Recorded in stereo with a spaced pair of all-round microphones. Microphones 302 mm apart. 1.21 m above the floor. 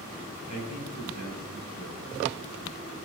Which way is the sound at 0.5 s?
65° left (ahead or behind).